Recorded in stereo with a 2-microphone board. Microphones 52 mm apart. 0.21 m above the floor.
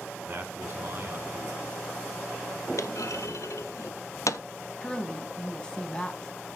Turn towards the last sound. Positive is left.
turn(degrees=15)  # may be behind; listen again after turning